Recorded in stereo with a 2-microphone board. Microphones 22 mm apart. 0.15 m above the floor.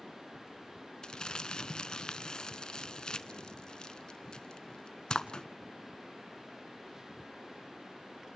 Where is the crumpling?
35° left (ahead or behind), 0.9 m.